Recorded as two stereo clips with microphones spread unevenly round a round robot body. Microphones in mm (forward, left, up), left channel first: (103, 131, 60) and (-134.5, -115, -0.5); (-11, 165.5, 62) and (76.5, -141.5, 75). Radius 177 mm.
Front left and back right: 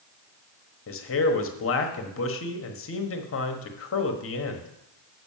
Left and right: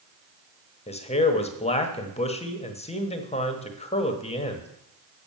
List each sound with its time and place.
0.9 s a man speaking: 65° left, 1.2 m